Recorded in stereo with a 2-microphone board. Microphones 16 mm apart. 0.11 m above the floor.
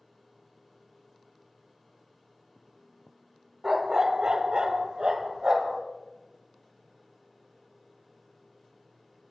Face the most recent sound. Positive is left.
turn(degrees=-40)  # may be behind; listen again after turning